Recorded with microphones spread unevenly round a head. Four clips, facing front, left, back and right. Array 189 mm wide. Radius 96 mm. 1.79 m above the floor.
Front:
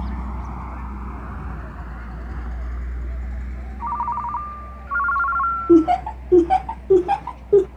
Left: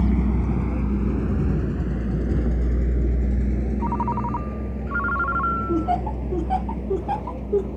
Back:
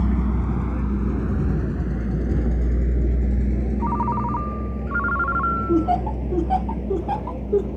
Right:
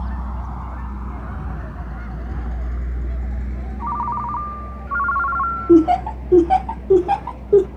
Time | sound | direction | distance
0.0 | a vehicle | 125° left | ?
3.8 | a ringtone | 130° left | ?
5.7 | laughter | 35° right | ?